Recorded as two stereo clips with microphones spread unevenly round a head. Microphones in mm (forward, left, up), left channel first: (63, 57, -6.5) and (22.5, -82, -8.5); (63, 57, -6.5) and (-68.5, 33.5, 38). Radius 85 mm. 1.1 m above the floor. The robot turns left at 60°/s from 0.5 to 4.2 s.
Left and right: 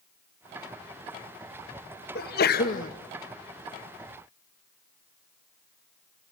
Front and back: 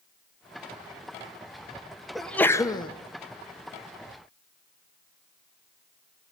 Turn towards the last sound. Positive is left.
turn(degrees=-30)